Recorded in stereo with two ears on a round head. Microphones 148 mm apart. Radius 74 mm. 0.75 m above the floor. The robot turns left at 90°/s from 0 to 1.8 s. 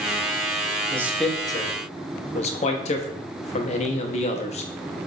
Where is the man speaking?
20° right (ahead or behind), 0.6 m; by 4.7 s 40° left (ahead or behind), 0.6 m.